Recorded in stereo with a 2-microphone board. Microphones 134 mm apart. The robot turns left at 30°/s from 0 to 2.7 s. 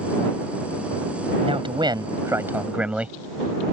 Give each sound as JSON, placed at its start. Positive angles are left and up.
{"t": 1.4, "sound": "a man speaking", "azimuth_deg": -130}